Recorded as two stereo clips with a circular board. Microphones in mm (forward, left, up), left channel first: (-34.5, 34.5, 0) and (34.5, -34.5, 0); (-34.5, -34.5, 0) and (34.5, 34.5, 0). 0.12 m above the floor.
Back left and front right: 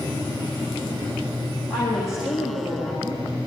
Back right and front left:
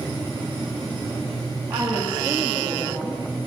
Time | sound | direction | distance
1.7 | a woman speaking | 120° left | 6.5 m